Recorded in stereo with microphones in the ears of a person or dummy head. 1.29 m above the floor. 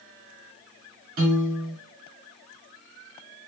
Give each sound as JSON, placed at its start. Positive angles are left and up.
{"t": 1.2, "sound": "a piano", "side_deg": -55, "distance_m": 2.0}